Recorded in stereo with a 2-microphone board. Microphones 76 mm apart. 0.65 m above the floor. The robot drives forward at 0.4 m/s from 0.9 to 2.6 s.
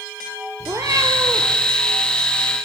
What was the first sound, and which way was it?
A cat meowing, 40° right (ahead or behind).